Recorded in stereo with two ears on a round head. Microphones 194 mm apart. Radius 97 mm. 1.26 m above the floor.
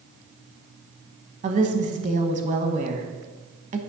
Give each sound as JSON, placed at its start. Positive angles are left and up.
{"t": 1.4, "sound": "a woman speaking", "side_deg": -35, "distance_m": 1.0}